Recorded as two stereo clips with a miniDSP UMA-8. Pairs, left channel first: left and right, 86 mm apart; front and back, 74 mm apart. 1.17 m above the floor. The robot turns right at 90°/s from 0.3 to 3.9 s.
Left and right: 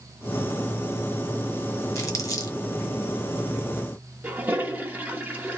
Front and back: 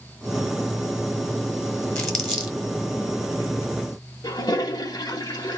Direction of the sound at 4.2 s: 20° right.